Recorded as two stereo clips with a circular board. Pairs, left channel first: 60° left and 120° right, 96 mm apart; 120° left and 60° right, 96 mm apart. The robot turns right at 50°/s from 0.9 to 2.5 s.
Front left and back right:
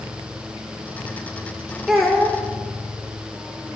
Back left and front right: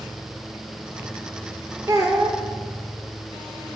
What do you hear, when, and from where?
1.9 s a child speaking: 40° right, 0.6 m; by 2.4 s 10° right, 0.6 m